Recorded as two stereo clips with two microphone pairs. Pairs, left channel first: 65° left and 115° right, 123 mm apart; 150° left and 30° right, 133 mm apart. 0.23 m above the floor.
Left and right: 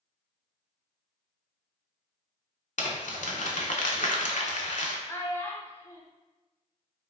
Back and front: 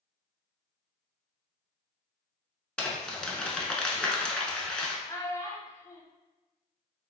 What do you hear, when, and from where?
2.8 s crumpling: 70° left, 0.5 m
5.1 s a child speaking: 110° left, 0.6 m